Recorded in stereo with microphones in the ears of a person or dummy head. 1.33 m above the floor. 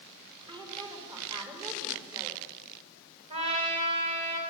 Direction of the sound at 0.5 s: 25° right (ahead or behind).